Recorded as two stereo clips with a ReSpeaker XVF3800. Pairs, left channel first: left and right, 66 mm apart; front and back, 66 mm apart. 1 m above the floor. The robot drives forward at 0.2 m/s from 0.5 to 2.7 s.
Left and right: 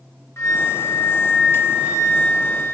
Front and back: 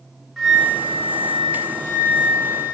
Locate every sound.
0.4 s a flute: 90° left, 0.8 m; by 2.8 s 130° left, 0.9 m